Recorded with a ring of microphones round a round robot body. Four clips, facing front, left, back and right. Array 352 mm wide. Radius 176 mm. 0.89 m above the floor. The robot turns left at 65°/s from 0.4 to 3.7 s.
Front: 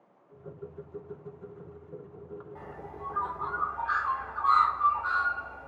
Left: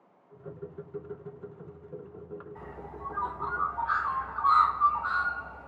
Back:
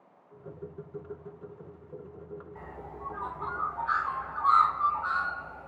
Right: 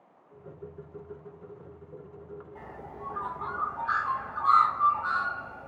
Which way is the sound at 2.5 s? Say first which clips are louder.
Even, front 1 dB; 25° right.